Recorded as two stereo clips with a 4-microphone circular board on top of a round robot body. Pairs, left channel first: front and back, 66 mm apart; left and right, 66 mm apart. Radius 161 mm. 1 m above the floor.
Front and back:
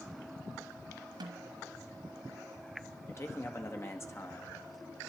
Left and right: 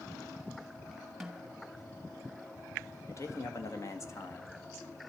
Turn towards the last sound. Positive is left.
turn(degrees=45)